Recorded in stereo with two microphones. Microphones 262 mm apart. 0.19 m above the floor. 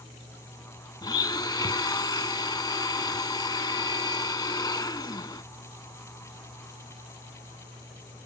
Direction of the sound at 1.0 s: 15° left (ahead or behind).